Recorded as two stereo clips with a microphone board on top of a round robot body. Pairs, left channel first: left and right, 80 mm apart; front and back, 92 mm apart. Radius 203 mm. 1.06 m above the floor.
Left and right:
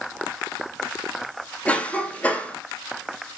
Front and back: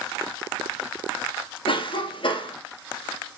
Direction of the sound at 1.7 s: 15° left.